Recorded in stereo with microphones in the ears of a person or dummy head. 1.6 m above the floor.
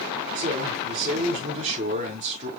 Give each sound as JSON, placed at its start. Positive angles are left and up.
{"t": 0.3, "sound": "a man speaking", "side_deg": -40, "distance_m": 7.0}